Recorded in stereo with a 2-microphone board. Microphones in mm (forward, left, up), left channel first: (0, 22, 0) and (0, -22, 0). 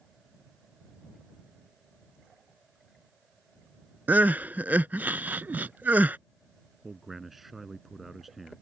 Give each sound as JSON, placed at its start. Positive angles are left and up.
{"t": 4.1, "sound": "crying", "side_deg": -50}
{"t": 6.8, "sound": "a man speaking", "side_deg": -5}